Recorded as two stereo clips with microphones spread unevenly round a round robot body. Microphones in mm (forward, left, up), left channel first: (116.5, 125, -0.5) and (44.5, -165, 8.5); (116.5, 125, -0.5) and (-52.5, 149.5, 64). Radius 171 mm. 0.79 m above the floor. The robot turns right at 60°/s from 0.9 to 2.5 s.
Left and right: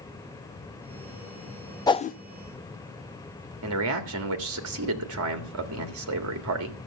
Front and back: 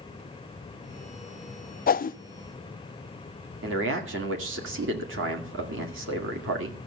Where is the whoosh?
Straight ahead, 0.5 m; by 2.2 s 15° left, 0.5 m.